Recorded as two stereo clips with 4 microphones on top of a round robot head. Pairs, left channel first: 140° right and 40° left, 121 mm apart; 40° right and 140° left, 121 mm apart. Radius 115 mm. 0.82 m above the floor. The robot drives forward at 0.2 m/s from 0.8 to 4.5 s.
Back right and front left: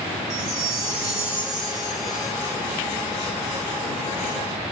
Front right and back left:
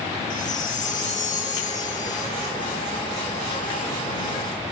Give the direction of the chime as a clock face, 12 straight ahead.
1 o'clock.